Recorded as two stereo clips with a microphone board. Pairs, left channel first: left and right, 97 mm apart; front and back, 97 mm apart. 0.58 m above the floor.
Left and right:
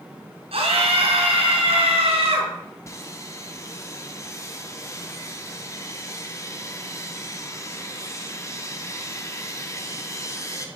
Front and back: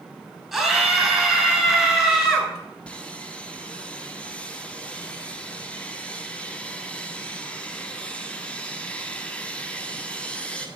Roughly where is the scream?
Right.